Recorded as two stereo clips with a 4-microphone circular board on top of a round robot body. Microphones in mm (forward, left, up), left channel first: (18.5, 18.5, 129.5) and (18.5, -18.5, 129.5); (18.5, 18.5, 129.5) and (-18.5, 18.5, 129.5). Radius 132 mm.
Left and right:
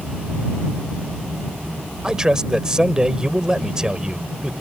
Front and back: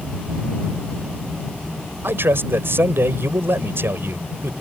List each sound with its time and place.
2.0 s a man speaking: 165° right